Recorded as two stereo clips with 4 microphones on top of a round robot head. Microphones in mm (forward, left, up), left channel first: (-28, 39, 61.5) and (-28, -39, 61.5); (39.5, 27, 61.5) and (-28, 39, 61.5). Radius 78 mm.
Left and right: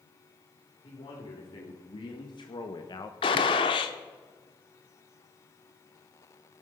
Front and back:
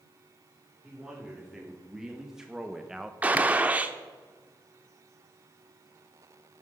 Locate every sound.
0.8 s a man speaking: 90° left, 3.5 m
3.2 s a gunshot: 105° left, 0.9 m